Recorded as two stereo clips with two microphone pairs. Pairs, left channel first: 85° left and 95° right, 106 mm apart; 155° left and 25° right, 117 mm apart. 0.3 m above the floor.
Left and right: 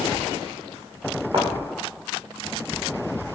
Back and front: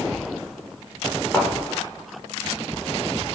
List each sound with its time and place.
1.3 s a thud: 135° right, 8.5 m